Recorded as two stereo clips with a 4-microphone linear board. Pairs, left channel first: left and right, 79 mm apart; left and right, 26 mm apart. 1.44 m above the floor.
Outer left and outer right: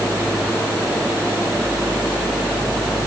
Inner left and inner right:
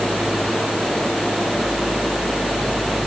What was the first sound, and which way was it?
Only background noise.